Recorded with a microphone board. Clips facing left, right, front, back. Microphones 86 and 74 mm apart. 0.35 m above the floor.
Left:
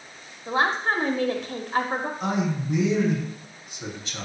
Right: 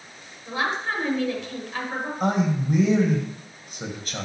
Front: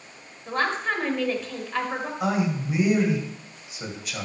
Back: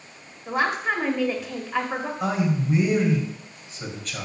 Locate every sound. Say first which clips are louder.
0.5 s a woman speaking: left 3 dB, back 2 dB; 105° left, 1.2 m
2.2 s a man speaking: right 7 dB, even; 80° right, 2 m